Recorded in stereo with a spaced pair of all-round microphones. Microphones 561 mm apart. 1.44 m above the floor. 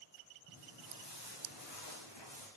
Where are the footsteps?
40° left (ahead or behind), 8 m; by 2.5 s 45° left (ahead or behind), 6 m.